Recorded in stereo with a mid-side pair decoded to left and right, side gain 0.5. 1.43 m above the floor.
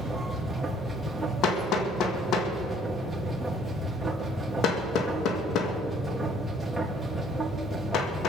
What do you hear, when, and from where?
0.0 s a machine running: straight ahead, 2.5 m
1.4 s hammering: 65° left, 1.9 m